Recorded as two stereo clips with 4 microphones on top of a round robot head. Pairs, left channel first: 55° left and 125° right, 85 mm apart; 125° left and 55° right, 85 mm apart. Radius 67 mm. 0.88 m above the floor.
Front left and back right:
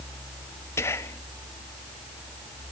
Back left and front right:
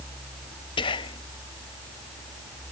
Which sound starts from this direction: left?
Whispering, at 0.8 s.